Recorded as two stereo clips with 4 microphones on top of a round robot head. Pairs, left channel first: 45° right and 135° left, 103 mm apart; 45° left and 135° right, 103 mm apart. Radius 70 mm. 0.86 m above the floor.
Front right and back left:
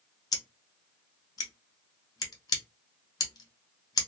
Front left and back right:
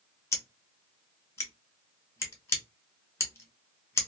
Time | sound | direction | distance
0.3 | scissors | 5° right | 1.0 m